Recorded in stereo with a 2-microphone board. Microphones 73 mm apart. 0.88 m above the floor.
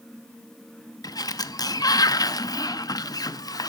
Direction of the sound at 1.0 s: 60° left (ahead or behind).